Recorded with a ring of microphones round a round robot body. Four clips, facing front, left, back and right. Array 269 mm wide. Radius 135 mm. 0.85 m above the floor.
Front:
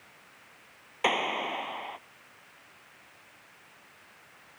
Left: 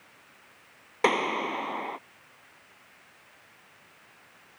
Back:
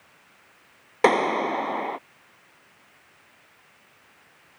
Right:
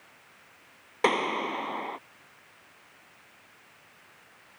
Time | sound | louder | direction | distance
1.0 | a clap | left 1 dB, back 9 dB | straight behind | ?